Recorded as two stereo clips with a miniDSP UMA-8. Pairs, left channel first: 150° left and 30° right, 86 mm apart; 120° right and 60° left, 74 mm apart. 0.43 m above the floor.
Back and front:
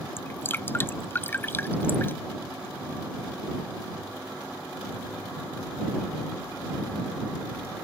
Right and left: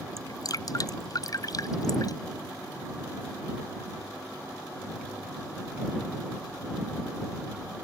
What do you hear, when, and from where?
0.2 s dripping: 150° right